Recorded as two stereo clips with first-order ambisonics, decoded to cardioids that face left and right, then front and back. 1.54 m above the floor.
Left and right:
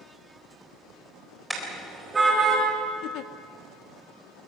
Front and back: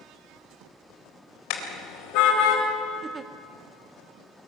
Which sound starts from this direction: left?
A giggle, at 3.0 s.